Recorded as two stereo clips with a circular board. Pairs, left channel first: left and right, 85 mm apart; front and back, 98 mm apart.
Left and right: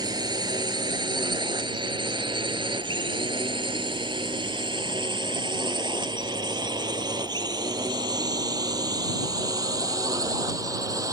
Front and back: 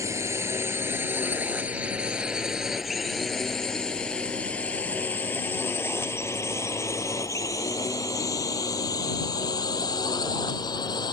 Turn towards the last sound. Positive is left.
turn(degrees=-45)